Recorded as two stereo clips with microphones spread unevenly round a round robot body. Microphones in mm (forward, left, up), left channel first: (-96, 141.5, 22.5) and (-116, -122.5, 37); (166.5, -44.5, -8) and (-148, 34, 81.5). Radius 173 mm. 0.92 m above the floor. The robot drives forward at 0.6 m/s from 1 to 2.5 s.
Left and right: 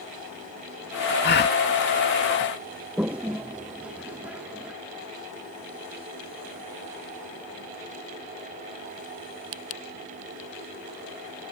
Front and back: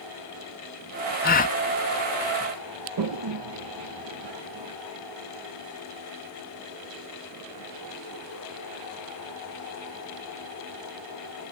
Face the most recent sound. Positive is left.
turn(degrees=180)